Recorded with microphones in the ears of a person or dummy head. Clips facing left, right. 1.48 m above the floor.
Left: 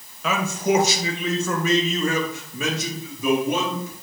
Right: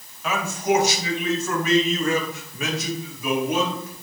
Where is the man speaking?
65° left (ahead or behind), 1.3 m; by 3.9 s 85° left, 3 m.